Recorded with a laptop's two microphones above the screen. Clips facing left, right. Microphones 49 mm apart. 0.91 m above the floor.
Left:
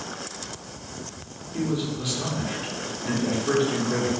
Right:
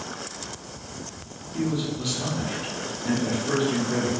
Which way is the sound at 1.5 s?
15° left (ahead or behind).